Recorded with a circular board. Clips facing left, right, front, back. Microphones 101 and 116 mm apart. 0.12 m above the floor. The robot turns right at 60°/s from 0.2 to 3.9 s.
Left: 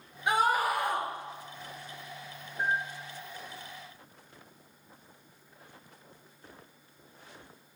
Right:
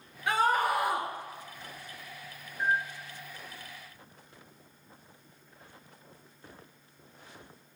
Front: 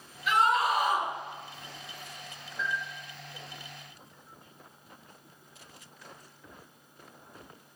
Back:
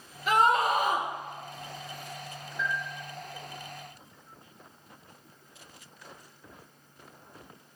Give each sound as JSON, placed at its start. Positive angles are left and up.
{"t": 0.3, "sound": "a scream", "azimuth_deg": 150, "distance_m": 2.5}
{"t": 2.6, "sound": "a bell", "azimuth_deg": 100, "distance_m": 3.0}